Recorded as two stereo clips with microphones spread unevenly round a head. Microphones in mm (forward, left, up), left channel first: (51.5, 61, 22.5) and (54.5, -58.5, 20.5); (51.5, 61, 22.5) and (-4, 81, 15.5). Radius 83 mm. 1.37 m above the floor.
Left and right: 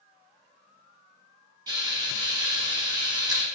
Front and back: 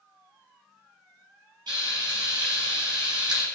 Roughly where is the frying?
Behind right.